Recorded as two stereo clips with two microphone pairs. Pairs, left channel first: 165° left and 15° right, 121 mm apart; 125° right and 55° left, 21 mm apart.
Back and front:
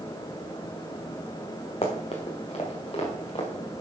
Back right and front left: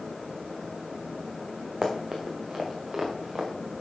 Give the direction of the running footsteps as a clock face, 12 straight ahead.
8 o'clock.